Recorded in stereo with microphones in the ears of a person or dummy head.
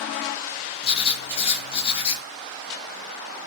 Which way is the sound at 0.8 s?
30° left (ahead or behind).